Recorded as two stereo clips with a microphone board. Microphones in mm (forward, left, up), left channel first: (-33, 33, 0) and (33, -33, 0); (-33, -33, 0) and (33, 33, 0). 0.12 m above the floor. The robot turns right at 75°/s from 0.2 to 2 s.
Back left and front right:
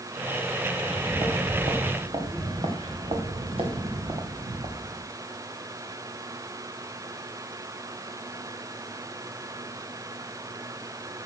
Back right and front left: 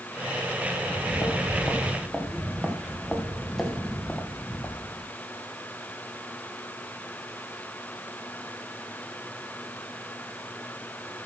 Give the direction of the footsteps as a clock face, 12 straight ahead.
4 o'clock.